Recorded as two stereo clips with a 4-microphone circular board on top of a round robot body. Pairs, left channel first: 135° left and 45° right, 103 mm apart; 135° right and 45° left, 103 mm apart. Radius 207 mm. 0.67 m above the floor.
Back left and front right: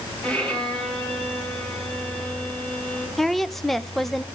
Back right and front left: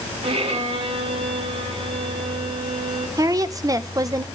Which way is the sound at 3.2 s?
50° left.